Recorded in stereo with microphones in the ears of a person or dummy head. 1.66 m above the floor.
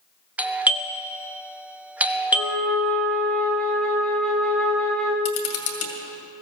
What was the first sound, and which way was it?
A doorbell, 5° right (ahead or behind).